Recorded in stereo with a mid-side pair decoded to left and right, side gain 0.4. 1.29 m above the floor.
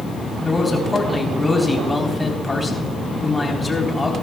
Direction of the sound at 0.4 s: 20° left.